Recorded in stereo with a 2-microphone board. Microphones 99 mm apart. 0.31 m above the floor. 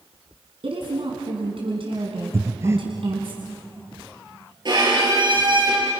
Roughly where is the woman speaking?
Right.